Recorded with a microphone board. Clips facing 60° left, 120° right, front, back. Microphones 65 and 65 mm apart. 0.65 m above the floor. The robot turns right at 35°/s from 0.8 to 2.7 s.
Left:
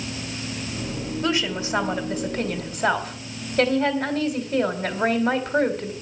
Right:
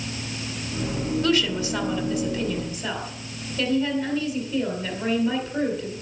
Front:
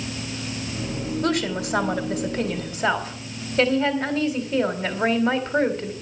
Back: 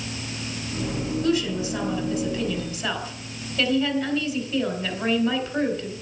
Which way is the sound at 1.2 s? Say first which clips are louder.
Right 1 dB, even; 15° right.